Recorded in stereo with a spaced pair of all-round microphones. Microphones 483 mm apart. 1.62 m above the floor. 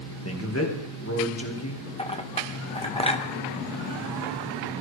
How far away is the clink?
About 0.8 m.